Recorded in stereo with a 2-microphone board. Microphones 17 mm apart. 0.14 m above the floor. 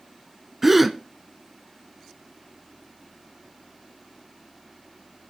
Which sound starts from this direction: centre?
A gasp, at 0.6 s.